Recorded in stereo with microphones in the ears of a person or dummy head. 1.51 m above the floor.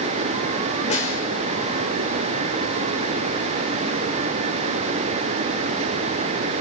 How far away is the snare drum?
About 2.5 m.